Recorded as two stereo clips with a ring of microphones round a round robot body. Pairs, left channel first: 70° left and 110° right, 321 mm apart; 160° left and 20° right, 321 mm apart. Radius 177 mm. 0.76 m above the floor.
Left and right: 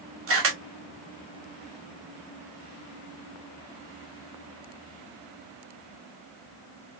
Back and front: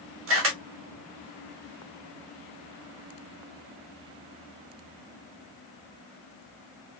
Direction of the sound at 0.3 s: 70° right.